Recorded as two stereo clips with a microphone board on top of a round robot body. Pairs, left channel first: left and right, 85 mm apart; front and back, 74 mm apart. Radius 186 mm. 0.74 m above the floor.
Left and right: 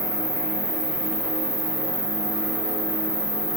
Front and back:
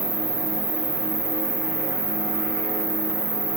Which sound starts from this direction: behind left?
An insect, at 0.0 s.